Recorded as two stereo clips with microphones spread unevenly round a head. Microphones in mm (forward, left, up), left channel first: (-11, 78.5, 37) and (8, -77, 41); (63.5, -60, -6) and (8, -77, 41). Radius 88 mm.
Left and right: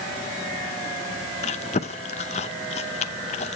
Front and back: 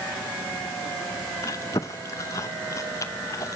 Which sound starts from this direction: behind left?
Chewing, at 1.4 s.